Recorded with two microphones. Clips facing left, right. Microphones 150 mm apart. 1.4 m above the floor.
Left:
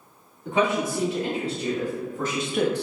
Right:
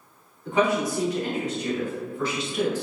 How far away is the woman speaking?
About 1.9 m.